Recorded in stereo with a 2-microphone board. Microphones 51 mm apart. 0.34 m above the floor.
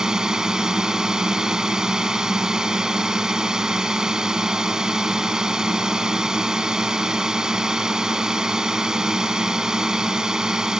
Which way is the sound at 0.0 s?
15° right (ahead or behind).